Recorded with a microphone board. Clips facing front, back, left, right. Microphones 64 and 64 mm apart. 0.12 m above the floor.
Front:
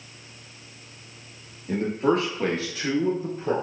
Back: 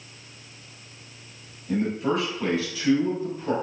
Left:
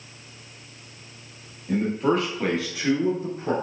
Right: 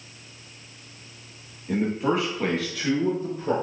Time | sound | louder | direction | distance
1.7 | a man speaking | front 2 dB, left 1 dB | 15° right | 2 m